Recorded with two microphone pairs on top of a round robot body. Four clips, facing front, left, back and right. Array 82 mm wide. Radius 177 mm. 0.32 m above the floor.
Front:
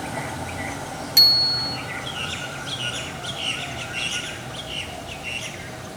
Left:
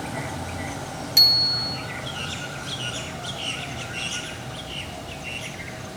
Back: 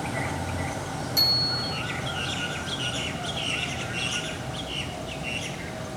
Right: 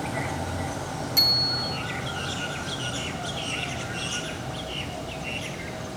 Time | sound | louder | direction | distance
1.2 | a bicycle bell | left 1 dB, front 3 dB | 30° left | 4 m